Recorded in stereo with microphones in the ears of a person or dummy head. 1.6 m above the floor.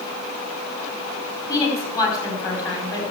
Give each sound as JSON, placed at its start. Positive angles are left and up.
{"t": 1.5, "sound": "a woman speaking", "side_deg": 20, "distance_m": 5.0}